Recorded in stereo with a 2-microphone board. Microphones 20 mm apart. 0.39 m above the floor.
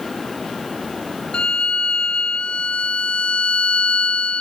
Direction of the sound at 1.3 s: 90° left.